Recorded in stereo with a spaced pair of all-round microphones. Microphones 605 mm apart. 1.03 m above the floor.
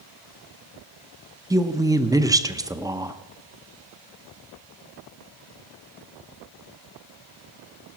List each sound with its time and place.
1.5 s a woman speaking: 5° right (ahead or behind), 0.7 m